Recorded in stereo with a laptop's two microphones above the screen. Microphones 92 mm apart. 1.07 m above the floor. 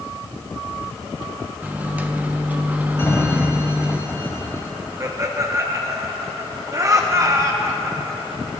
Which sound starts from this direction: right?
Laughter, at 5.0 s.